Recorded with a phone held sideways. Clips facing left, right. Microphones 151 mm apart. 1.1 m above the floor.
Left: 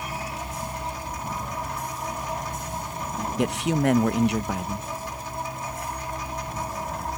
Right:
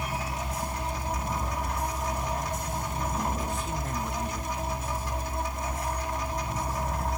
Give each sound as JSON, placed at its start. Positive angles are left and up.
{"t": 3.4, "sound": "a man speaking", "side_deg": 75}